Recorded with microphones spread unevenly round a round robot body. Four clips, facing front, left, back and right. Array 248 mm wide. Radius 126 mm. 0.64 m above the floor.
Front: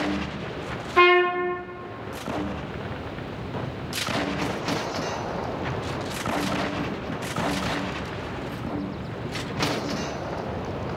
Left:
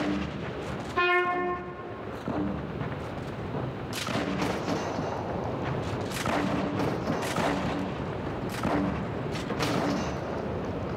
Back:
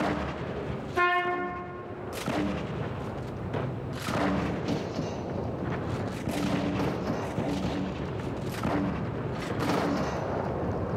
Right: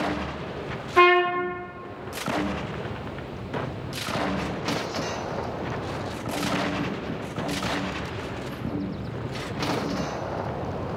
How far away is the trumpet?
About 0.5 m.